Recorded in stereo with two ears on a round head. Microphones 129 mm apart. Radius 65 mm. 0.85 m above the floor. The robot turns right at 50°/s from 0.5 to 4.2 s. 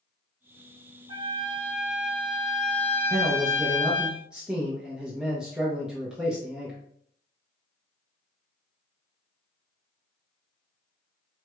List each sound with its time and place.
1.1 s a trumpet: 70° right, 0.6 m; by 4.1 s 80° left, 0.6 m
3.1 s a man speaking: 25° right (ahead or behind), 0.6 m; by 6.8 s 5° right (ahead or behind), 0.6 m